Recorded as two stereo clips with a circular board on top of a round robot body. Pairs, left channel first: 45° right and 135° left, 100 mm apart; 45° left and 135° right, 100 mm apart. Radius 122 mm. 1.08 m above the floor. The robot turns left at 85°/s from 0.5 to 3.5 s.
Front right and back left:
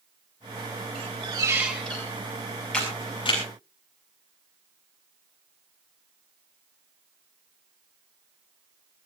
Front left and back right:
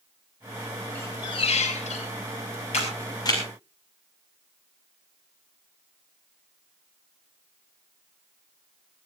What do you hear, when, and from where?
0.9 s a squeak: 120° left, 3 m; by 2.1 s 20° left, 3 m
2.7 s a camera shutter: 35° left, 6.5 m; by 3.4 s 20° right, 6.5 m